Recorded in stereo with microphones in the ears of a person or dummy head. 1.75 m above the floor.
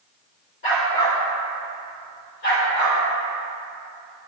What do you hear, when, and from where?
0.6 s a dog barking: 30° left (ahead or behind), 1.3 m; by 3.0 s 65° left (ahead or behind), 2.5 m